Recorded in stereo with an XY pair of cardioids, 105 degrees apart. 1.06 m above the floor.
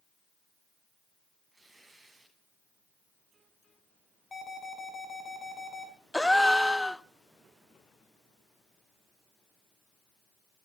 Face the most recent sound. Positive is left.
turn(degrees=5)